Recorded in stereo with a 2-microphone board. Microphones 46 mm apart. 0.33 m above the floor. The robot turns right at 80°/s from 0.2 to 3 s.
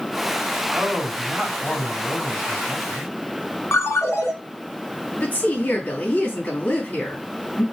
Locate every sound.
0.7 s a man speaking: 45° right, 2.5 m; by 3.1 s 140° left, 2.5 m
3.7 s a ringtone: 70° left (ahead or behind), 1.8 m
5.2 s a woman speaking: 35° left (ahead or behind), 3 m